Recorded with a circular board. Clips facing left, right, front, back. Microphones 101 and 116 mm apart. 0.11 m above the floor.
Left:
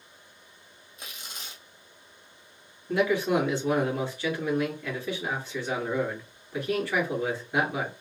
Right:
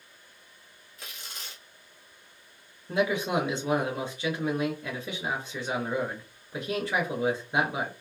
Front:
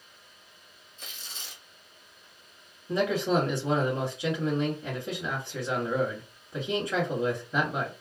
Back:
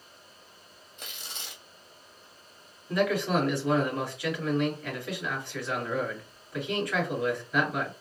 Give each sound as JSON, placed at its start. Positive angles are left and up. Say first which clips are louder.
{"t": 1.0, "sound": "tearing paper", "louder": "left 1 dB, back 2 dB", "azimuth_deg": 160, "distance_m": 1.0}
{"t": 2.9, "sound": "a man speaking", "louder": "left 2 dB, front 1 dB", "azimuth_deg": -40, "distance_m": 1.9}